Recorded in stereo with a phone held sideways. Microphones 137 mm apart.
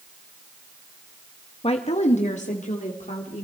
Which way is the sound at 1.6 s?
45° left (ahead or behind).